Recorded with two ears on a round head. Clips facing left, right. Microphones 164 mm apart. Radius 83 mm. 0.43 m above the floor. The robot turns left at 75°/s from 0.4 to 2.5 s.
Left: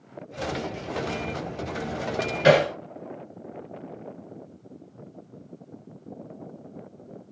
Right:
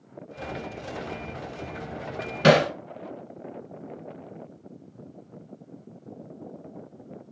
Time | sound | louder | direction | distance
2.4 | hammering | even | 60° right (ahead or behind) | 1.1 m